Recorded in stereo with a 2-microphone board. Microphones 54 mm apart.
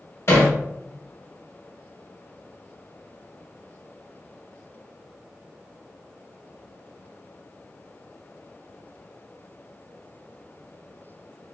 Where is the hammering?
55° left (ahead or behind), 0.9 m.